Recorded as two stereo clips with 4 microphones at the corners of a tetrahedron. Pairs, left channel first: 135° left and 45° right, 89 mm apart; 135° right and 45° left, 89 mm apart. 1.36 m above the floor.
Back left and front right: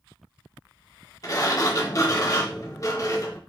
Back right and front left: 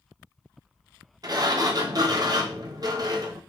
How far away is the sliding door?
About 0.8 m.